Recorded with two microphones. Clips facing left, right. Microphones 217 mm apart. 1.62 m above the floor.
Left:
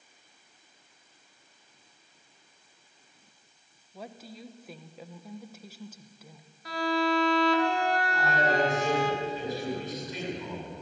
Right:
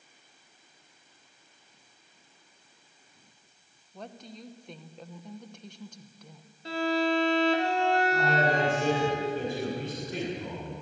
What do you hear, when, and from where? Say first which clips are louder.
3.9 s a woman speaking: even; 5° left (ahead or behind), 1.3 m
6.7 s a violin: right 1 dB; 25° right (ahead or behind), 3 m
8.1 s a man speaking: right 1 dB; 50° right (ahead or behind), 7 m